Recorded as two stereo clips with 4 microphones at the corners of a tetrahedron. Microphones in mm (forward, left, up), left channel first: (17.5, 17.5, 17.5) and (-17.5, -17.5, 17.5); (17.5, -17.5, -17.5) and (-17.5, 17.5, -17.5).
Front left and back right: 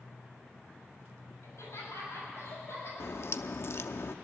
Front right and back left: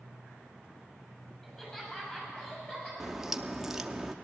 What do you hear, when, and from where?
1.4 s laughter: 30° left, 7 m; by 2.9 s 15° left, 7 m
3.0 s a crack: 50° left, 0.5 m